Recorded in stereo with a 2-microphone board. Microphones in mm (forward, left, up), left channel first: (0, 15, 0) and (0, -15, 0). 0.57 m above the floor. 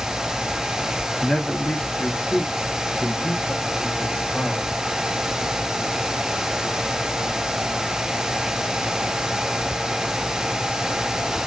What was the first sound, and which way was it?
A man speaking, 20° left (ahead or behind).